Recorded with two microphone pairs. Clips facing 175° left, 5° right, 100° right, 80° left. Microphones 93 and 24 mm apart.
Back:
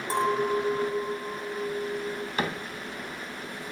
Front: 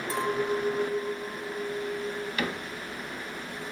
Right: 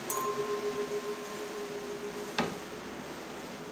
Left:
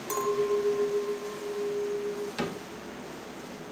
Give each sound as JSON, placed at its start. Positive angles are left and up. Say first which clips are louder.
{"t": 0.1, "sound": "a clink", "louder": "back 3 dB, left 6 dB", "azimuth_deg": 140, "distance_m": 0.7}
{"t": 2.4, "sound": "a cupboard door", "louder": "back 3 dB, right 5 dB", "azimuth_deg": -160, "distance_m": 0.7}